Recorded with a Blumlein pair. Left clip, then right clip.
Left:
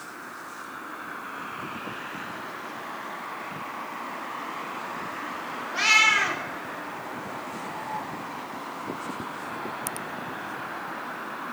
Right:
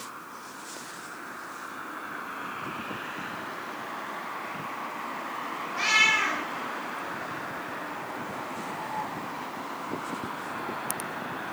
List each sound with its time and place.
5.7 s a cat meowing: 45° left, 1.6 m